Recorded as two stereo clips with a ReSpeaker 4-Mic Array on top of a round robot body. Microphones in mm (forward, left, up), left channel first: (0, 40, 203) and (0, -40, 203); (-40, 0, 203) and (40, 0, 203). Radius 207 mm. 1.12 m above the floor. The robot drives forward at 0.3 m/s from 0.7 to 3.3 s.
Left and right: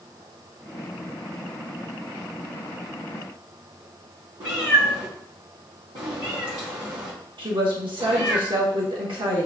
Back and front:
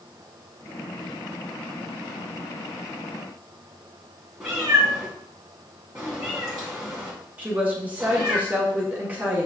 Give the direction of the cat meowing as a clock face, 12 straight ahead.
3 o'clock.